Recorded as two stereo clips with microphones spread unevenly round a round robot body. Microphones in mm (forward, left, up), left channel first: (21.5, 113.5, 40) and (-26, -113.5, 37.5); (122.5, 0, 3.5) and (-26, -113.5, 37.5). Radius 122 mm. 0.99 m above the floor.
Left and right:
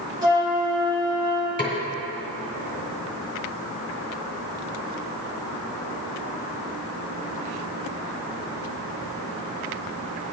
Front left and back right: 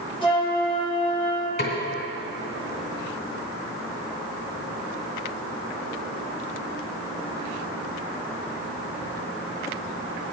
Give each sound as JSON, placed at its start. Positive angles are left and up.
{"t": 0.2, "sound": "a flute", "azimuth_deg": -25, "distance_m": 3.0}
{"t": 1.6, "sound": "a snare drum", "azimuth_deg": 10, "distance_m": 3.0}